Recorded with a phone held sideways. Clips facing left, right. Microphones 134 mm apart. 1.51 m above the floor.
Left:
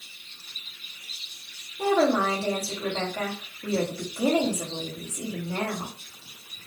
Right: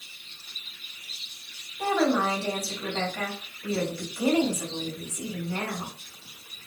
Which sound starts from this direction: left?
A woman speaking, at 1.8 s.